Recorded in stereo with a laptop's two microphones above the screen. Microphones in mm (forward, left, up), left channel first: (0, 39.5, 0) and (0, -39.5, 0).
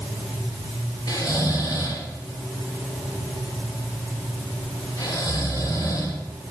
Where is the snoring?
50° left (ahead or behind), 6 m.